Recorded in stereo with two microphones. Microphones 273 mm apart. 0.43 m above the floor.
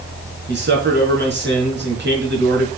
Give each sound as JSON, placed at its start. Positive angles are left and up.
{"t": 0.5, "sound": "a man speaking", "side_deg": -40, "distance_m": 5.0}